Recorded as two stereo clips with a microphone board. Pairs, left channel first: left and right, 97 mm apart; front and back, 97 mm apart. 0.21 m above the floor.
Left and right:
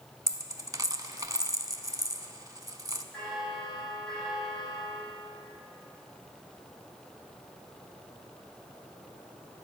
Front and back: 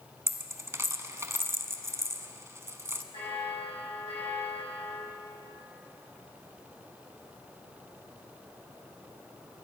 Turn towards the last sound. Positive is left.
turn(degrees=5)